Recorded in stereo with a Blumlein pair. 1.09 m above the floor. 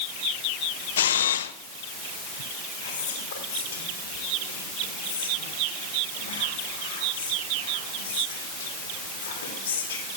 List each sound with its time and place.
1.0 s a camera shutter: 60° left, 0.7 m
2.8 s whispering: 60° left, 3.5 m